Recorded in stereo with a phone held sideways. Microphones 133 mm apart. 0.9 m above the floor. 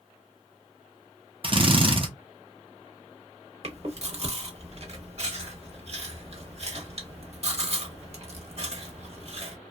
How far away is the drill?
About 0.7 m.